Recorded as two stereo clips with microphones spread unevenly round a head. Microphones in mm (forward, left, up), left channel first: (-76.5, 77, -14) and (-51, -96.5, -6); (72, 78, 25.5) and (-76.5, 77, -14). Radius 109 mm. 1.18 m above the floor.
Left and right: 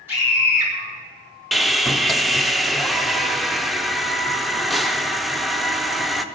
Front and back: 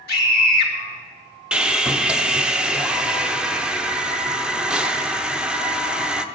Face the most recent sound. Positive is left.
turn(degrees=180)